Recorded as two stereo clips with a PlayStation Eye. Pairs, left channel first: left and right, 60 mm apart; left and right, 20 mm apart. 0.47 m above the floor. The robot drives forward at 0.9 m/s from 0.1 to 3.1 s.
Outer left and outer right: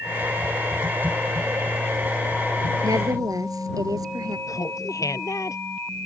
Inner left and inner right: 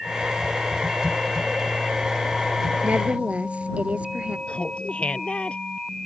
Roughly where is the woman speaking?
Right.